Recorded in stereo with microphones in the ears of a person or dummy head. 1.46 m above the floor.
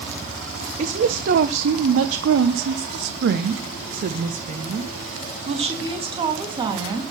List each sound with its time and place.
0.8 s a woman speaking: 55° right (ahead or behind), 1.2 m; by 7.0 s 20° right (ahead or behind), 3 m